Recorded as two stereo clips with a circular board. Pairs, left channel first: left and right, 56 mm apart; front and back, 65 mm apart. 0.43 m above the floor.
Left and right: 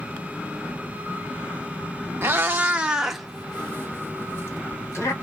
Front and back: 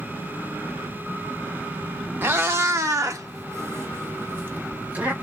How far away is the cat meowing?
About 0.8 m.